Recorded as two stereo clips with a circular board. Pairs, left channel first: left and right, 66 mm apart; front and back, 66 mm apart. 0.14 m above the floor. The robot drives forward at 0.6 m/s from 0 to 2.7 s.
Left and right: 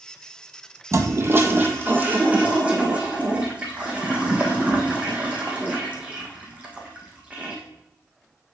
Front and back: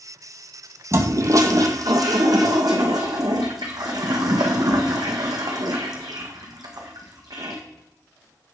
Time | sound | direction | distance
0.9 | a toilet flushing | 135° right | 0.8 m